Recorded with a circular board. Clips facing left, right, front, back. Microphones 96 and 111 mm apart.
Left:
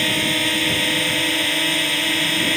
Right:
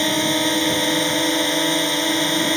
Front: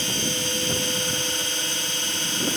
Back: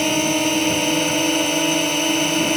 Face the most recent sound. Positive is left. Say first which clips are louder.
# right 3 dB, back 11 dB
turn(degrees=-160)